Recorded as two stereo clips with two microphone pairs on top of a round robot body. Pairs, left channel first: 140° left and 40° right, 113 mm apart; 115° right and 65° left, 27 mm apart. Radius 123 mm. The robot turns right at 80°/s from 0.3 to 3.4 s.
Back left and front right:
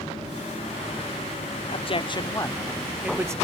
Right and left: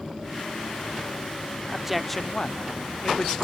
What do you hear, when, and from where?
1.7 s a man speaking: 140° left; by 3.3 s 90° right